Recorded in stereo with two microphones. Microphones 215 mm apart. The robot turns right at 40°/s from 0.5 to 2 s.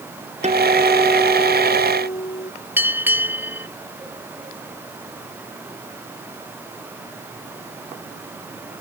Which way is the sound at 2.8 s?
10° right (ahead or behind).